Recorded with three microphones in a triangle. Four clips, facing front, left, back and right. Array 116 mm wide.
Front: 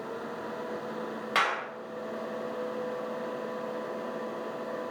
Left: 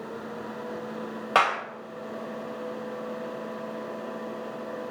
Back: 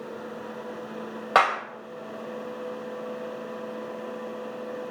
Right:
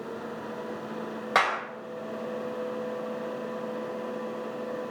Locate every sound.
1.4 s a clap: 165° left, 3.5 m